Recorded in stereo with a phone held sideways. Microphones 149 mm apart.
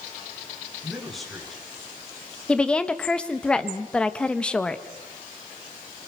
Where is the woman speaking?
5° left (ahead or behind), 1.3 m.